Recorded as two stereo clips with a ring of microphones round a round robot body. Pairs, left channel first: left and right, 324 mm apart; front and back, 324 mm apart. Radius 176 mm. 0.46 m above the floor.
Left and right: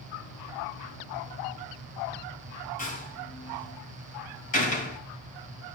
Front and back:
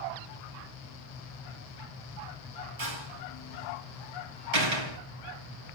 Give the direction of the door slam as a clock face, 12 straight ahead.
7 o'clock.